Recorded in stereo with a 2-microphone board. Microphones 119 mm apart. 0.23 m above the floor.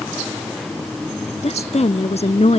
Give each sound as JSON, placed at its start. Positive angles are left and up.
{"t": 1.4, "sound": "a woman speaking", "side_deg": 65}